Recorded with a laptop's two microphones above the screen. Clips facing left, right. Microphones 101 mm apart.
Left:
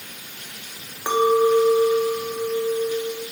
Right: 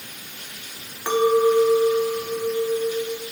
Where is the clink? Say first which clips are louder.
Even; 15° left (ahead or behind), 1.2 m.